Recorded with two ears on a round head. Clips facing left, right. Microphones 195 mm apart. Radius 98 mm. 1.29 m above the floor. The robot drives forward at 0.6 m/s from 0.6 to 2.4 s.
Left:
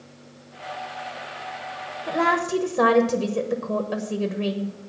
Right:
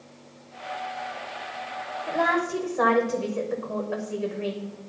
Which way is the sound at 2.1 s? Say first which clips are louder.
Left 2 dB; 40° left (ahead or behind).